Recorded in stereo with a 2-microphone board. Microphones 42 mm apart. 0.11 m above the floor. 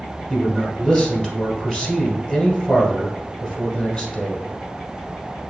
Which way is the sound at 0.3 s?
25° left (ahead or behind).